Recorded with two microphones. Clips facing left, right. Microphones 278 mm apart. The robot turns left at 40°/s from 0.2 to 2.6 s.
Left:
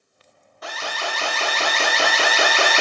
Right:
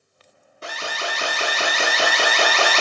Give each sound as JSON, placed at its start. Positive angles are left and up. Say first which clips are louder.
{"t": 0.6, "sound": "an alarm", "louder": "even", "azimuth_deg": -125, "distance_m": 0.5}